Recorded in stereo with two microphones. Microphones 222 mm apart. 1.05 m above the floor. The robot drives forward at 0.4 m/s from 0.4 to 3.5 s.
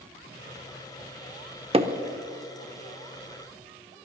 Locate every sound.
1.7 s hammering: 25° right (ahead or behind), 0.8 m